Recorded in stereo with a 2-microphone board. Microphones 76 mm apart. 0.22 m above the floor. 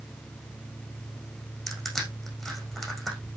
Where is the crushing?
Centre (ahead or behind), 7 m.